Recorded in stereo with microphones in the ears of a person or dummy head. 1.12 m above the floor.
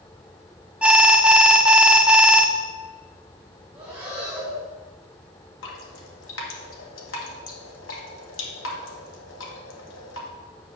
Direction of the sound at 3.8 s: 10° right (ahead or behind).